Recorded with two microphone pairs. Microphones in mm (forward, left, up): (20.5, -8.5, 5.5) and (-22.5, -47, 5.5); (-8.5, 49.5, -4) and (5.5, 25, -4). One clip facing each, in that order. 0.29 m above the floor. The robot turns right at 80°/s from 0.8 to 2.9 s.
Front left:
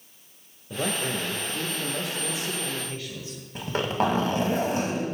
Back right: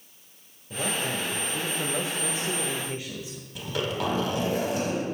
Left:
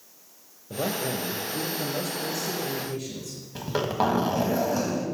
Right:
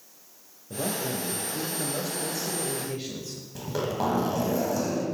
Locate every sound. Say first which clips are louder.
0.7 s a man speaking: front left 1 dB, left 2 dB; 100° left, 1.1 m; by 3.5 s 90° right, 1.1 m
3.5 s a zipper: front left 4 dB, left 3 dB; 75° left, 1.7 m